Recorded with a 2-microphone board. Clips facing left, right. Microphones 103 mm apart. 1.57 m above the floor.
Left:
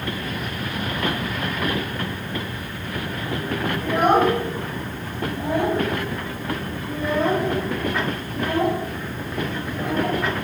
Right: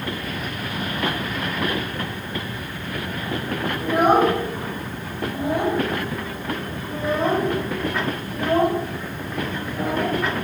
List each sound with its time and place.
3.8 s a child speaking: 10° right (ahead or behind), 8.5 m; by 10.2 s 40° right (ahead or behind), 8.5 m